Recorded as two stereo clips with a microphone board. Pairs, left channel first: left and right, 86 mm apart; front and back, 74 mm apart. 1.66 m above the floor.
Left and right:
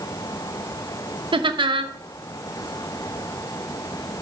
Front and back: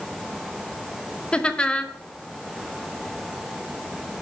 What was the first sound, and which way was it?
Laughter, 75° right.